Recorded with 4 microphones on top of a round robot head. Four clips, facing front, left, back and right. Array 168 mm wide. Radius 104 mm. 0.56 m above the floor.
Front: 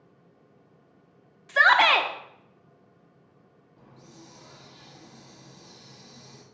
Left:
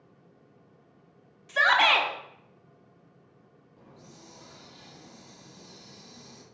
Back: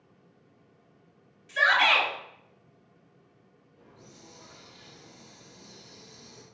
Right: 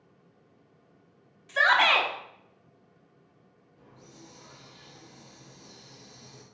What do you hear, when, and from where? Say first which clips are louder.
1.5 s a shout: even, front 5 dB; 10° left, 1.3 m
3.8 s a hiss: even, front 3 dB; 45° left, 1.7 m